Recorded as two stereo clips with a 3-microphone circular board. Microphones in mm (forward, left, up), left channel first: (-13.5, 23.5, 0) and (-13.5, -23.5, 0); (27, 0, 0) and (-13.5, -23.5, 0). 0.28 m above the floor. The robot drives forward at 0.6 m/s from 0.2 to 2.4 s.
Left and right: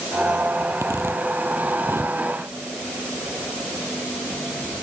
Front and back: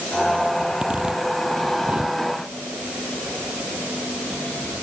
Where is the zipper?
85° right; by 2.2 s 90° right.